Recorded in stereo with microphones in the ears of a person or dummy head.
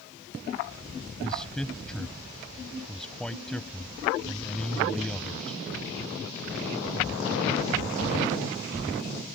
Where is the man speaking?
Centre (ahead or behind).